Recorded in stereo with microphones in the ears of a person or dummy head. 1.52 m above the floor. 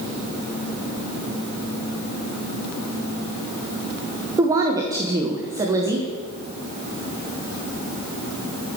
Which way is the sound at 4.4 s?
15° right (ahead or behind).